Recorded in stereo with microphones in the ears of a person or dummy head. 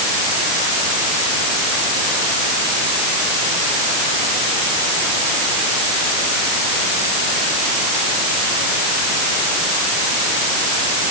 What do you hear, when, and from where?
Only background noise.